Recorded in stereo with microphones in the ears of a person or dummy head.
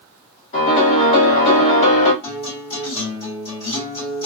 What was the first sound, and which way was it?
A piano, 45° left (ahead or behind).